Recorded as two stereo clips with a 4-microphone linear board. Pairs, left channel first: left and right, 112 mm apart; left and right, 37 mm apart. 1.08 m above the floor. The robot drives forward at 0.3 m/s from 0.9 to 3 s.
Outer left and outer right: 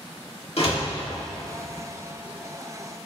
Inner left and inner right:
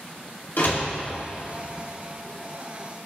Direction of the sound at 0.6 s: 65° left (ahead or behind).